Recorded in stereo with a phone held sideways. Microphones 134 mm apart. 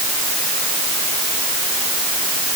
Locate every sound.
Only background noise.